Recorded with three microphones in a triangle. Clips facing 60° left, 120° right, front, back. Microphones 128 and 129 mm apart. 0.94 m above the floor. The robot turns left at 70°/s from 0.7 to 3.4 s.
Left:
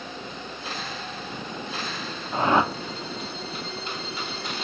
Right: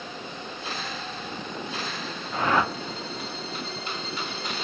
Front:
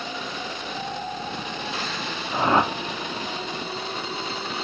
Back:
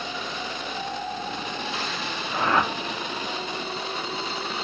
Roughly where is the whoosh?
Ahead left.